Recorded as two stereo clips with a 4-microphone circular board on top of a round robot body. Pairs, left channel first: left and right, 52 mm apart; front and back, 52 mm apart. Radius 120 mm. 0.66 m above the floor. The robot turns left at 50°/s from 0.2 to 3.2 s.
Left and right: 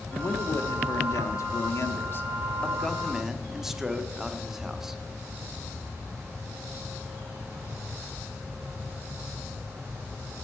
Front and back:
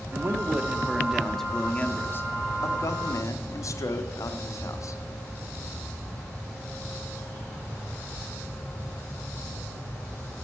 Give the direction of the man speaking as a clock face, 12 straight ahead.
7 o'clock.